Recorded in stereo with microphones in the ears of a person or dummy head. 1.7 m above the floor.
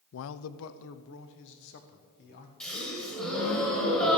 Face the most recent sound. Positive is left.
turn(degrees=5)  # may be behind; listen again after turning